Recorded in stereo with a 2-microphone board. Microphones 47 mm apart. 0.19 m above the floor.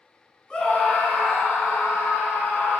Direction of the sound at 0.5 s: 20° left (ahead or behind).